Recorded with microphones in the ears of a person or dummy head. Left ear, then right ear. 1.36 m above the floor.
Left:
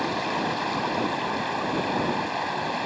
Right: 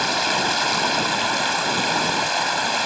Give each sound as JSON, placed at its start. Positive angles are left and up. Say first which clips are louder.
{"t": 0.0, "sound": "running water", "louder": "right 6 dB", "side_deg": -60}